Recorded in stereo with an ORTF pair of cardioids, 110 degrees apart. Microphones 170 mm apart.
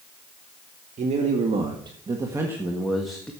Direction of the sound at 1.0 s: 45° right.